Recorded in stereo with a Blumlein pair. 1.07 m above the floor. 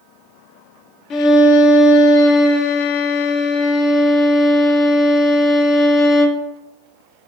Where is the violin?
30° left, 0.6 m.